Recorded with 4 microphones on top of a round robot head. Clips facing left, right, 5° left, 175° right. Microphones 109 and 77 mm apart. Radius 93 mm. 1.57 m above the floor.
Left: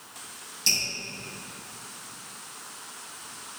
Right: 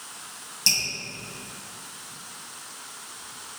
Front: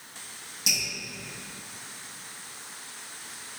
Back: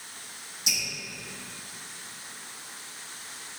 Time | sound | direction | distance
0.7 | dripping | 50° right | 1.9 m